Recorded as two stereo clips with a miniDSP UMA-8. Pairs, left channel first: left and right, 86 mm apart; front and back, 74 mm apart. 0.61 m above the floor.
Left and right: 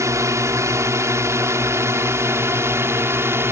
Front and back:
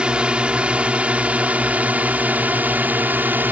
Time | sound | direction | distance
0.0 | a drone | 110° right | ?